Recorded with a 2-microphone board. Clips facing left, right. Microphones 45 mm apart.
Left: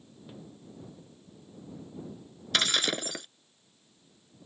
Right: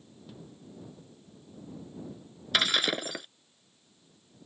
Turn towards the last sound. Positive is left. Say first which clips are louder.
# right 1 dB
turn(degrees=-10)  # may be behind; listen again after turning